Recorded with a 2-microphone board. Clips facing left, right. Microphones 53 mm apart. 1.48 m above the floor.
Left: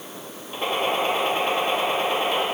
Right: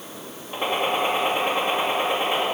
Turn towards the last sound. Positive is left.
turn(degrees=-20)  # may be behind; listen again after turning